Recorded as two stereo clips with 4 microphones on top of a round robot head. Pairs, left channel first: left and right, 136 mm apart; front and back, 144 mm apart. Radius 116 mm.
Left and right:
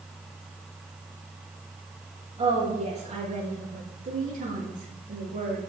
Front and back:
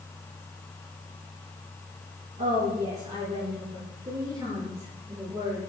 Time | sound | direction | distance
2.4 | a woman speaking | 130° right | 7 m